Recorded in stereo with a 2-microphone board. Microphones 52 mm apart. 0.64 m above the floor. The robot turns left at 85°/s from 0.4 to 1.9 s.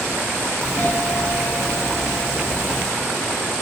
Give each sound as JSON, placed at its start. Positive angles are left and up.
{"t": 0.6, "sound": "a doorbell", "azimuth_deg": 130, "distance_m": 1.3}